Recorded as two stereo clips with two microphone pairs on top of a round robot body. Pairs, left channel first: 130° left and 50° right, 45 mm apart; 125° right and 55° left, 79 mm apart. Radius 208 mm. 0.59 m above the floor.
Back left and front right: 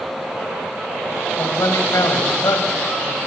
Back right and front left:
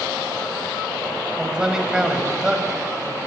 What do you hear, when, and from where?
1.4 s a man speaking: 135° left, 3.5 m